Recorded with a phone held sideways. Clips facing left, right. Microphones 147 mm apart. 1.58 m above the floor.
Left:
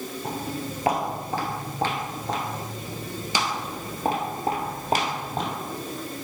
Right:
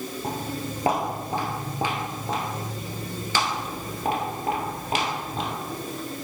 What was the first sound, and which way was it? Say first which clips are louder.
Footsteps: even; 40° right (ahead or behind).